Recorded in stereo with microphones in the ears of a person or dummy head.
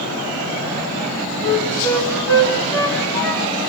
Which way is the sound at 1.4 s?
20° left (ahead or behind).